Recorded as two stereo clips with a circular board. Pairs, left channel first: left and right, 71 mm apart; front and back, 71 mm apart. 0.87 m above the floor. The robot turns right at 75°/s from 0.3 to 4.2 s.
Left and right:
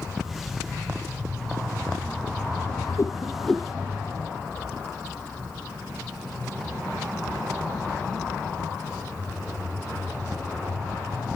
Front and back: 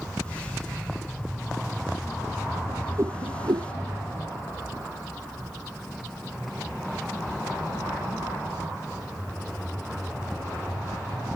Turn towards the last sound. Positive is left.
turn(degrees=-135)